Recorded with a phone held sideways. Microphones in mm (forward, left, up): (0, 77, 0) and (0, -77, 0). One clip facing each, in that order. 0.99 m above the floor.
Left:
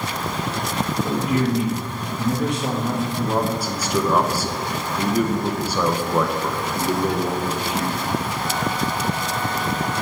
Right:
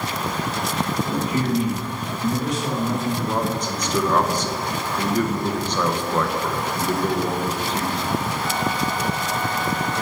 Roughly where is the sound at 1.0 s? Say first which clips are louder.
Left 2 dB; left.